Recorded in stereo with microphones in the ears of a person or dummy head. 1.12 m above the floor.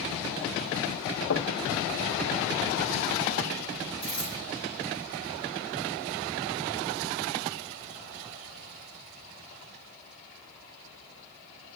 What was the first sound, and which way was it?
Knocking, 60° left (ahead or behind).